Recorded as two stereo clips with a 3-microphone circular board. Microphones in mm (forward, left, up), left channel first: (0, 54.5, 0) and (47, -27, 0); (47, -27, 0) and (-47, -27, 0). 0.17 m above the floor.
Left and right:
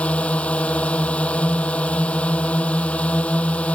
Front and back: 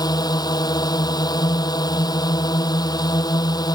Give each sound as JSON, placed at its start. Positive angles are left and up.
{"t": 0.0, "sound": "a drone", "azimuth_deg": 40}